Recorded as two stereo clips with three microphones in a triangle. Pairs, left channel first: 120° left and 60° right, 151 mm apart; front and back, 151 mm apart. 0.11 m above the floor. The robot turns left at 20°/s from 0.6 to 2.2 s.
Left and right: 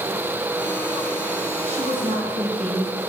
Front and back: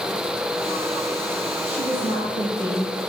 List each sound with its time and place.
1.6 s a woman speaking: 35° right, 2.5 m; by 3.1 s 45° right, 2.5 m